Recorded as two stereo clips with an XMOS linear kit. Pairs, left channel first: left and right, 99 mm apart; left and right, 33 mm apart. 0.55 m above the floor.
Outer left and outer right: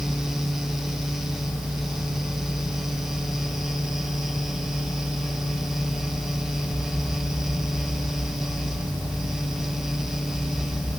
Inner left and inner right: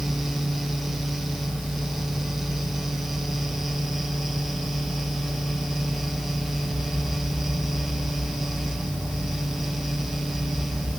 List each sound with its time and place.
Only background noise.